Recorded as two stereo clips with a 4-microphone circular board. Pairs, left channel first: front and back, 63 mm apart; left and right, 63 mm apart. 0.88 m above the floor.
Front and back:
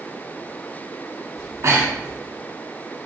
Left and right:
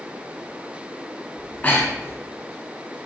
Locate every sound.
1.4 s breathing: 150° left, 1.5 m